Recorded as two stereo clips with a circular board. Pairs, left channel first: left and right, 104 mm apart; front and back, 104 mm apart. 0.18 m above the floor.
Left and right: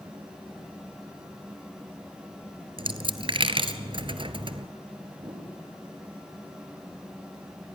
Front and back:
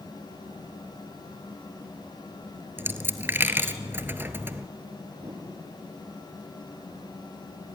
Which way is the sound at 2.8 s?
115° right.